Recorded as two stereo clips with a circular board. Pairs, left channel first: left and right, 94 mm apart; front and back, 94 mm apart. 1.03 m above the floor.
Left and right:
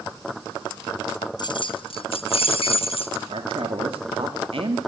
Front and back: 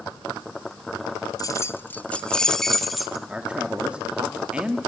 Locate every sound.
1.4 s keys jangling: 50° left, 0.9 m; by 3.2 s 90° left, 2.5 m
3.3 s a man speaking: 100° right, 2 m